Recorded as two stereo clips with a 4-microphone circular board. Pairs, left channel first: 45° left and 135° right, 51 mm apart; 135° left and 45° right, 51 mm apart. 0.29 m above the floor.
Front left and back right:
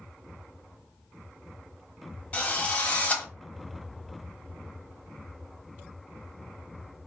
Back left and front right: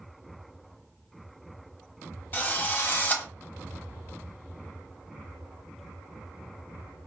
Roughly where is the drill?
Left.